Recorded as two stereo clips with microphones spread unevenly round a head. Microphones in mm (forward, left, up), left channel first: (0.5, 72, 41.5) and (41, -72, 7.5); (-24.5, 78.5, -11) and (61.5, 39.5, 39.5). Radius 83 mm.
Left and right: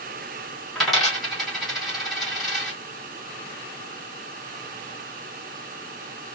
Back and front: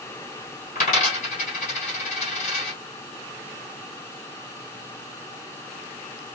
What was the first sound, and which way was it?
A dropped coin, 170° right.